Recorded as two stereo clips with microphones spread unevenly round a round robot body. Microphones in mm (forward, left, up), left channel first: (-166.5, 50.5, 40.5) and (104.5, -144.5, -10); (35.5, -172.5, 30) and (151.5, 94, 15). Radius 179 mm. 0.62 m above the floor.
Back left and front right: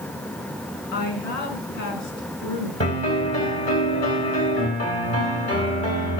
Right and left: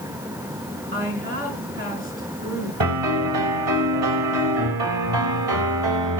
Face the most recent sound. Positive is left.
turn(degrees=70)